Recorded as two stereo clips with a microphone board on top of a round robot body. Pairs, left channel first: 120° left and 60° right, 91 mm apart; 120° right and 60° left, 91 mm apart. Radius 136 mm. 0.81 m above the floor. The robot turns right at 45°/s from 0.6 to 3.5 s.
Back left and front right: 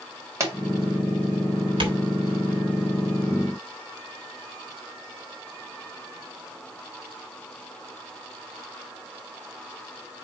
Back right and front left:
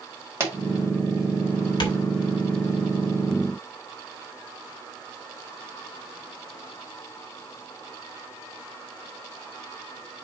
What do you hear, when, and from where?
0.4 s a pop: straight ahead, 2.5 m
1.8 s tapping: 85° right, 2.5 m; by 2.0 s 75° right, 2.5 m